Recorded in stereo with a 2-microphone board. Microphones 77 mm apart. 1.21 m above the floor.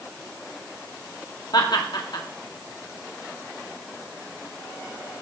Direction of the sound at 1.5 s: 60° left (ahead or behind).